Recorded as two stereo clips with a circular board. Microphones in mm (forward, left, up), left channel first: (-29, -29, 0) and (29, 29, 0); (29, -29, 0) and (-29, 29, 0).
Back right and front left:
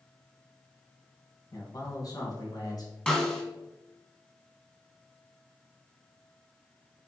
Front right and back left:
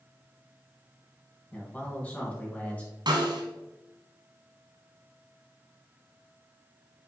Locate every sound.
1.5 s a man speaking: 115° right, 2 m
3.1 s a snare drum: 145° left, 1.5 m